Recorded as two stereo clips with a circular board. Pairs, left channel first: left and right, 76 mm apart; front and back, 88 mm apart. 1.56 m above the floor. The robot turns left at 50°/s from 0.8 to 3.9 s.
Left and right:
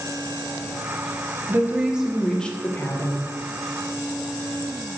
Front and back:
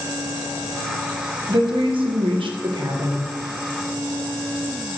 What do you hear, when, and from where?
1.5 s a woman speaking: 145° right, 1.5 m; by 3.3 s 125° left, 1.5 m